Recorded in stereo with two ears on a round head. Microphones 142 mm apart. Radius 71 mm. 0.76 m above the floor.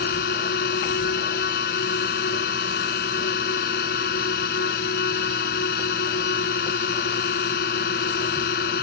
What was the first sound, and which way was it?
A drone, 65° left (ahead or behind).